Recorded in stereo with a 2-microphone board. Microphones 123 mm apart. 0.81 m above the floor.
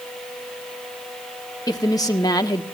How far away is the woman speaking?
About 1.4 m.